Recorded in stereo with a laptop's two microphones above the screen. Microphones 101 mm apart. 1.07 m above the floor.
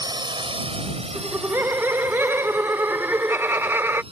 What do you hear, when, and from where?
0.0 s a drone: 40° right (ahead or behind); by 4.1 s 60° right (ahead or behind)
1.1 s laughter: 25° right (ahead or behind)